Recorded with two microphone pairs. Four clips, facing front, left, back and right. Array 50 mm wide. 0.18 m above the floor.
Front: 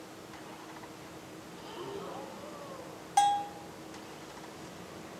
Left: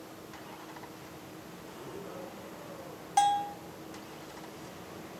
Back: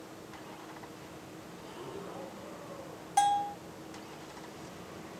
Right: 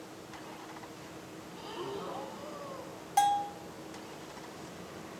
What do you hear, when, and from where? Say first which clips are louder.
1.6 s breathing: right 7 dB, front 3 dB; 55° right, 3.5 m
3.2 s a bell: left 1 dB, front 1 dB; 35° left, 1.1 m